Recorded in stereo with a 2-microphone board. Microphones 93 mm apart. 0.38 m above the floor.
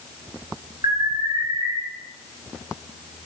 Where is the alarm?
55° right (ahead or behind), 6.5 m.